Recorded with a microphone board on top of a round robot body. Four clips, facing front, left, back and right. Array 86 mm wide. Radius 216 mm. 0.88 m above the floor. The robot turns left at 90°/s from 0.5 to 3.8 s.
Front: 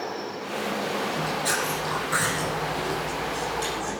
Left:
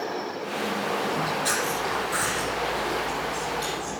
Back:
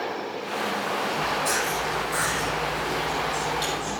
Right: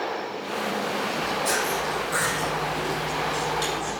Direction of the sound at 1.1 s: 90° left.